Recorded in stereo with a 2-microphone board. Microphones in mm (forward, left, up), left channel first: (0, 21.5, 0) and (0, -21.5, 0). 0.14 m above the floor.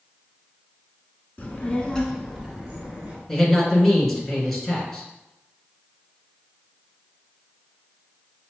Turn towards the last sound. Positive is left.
turn(degrees=5)  # may be behind; listen again after turning